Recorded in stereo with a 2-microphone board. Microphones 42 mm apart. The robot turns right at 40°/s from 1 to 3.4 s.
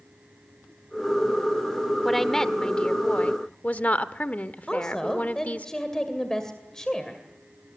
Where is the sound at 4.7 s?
15° left (ahead or behind), 2 m.